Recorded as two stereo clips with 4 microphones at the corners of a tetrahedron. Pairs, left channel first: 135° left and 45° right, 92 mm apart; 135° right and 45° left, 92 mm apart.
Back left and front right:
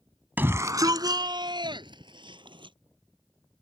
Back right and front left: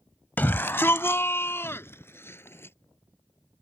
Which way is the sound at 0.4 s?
90° right.